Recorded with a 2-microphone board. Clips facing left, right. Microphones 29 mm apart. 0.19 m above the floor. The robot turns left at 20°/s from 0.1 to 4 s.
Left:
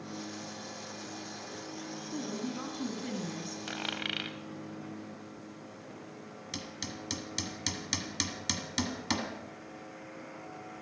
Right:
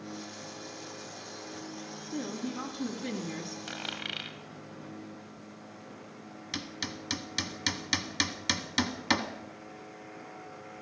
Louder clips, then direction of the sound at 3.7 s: Left 2 dB; 5° left (ahead or behind).